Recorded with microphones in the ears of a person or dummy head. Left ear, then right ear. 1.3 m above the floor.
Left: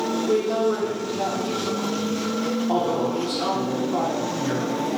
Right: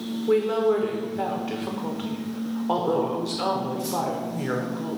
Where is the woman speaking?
35° right (ahead or behind), 0.8 m.